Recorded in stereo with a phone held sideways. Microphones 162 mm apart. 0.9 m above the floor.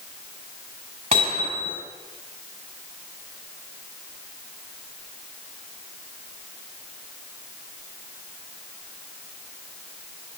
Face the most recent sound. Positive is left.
turn(degrees=-40)  # may be behind; listen again after turning